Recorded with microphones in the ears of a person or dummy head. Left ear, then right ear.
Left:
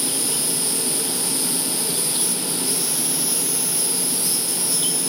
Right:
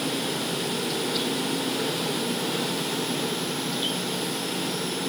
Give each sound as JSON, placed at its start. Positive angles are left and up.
{"t": 0.0, "sound": "an insect", "side_deg": 80, "distance_m": 4.5}